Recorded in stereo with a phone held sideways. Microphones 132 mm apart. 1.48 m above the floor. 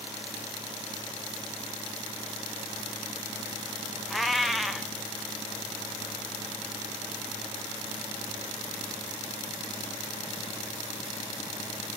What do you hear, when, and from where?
4.1 s a cat meowing: centre (ahead or behind), 0.6 m